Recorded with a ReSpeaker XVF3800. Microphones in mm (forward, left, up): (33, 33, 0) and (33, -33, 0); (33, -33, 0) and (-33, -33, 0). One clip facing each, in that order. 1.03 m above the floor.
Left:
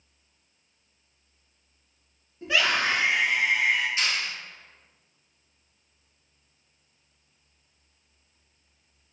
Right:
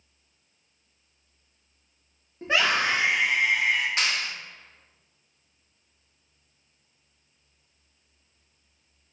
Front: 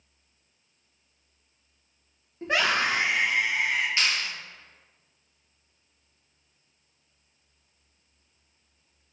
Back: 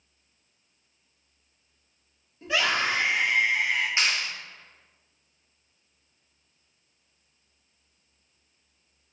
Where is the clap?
110° right, 0.7 m.